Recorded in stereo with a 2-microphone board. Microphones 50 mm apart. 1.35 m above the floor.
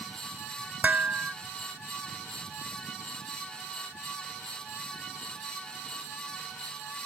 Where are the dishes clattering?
40° right (ahead or behind).